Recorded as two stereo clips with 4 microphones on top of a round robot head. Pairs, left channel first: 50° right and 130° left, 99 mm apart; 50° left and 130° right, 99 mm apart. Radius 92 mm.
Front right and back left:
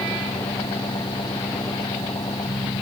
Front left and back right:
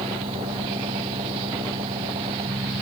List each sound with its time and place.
0.0 s an engine running: 100° right